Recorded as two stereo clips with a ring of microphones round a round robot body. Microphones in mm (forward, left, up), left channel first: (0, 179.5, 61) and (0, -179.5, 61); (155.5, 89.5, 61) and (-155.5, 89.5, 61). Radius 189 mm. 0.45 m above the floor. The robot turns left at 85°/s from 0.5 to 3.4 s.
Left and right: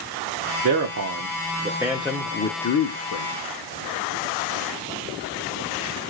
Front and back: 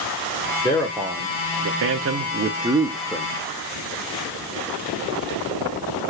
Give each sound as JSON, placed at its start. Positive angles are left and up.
{"t": 0.6, "sound": "a man speaking", "azimuth_deg": -70, "distance_m": 0.9}